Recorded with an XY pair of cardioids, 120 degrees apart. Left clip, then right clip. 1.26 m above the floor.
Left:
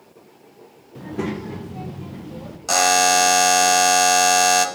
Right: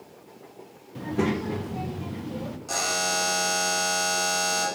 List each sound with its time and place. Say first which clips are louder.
0.9 s a child speaking: right 1 dB; 10° right, 0.6 m
2.7 s a buzzer: left 11 dB; 70° left, 0.5 m